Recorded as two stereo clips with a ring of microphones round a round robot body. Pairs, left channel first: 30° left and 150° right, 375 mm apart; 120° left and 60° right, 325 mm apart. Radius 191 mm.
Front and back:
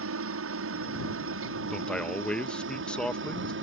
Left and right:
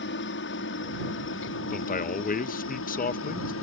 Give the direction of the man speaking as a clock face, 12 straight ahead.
8 o'clock.